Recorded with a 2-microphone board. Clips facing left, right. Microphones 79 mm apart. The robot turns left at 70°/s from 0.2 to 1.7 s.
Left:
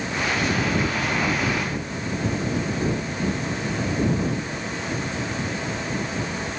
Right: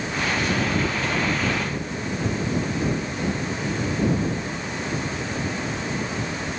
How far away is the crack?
I don't hear a crack.